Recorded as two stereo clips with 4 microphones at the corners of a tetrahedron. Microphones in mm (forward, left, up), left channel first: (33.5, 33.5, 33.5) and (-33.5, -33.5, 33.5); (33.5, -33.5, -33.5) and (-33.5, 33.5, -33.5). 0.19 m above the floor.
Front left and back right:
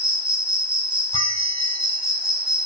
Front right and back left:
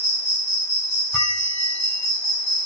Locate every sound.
0.0 s an insect: 150° left, 0.7 m
1.1 s a bell: 35° left, 0.9 m